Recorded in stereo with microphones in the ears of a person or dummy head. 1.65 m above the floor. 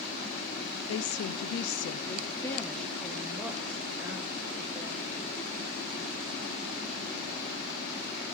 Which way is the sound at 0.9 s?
80° left.